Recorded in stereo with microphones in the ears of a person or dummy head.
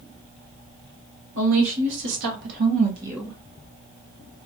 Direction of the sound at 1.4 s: 70° right (ahead or behind).